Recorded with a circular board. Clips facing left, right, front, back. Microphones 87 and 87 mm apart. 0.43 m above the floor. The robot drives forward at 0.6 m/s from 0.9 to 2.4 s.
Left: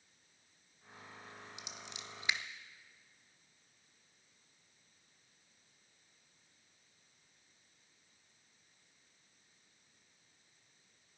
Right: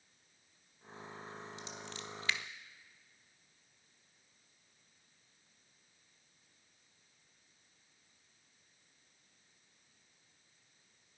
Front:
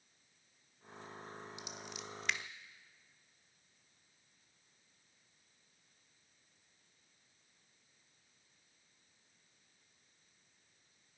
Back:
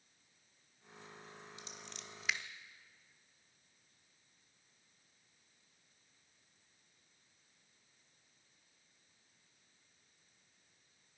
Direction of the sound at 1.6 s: 45° left.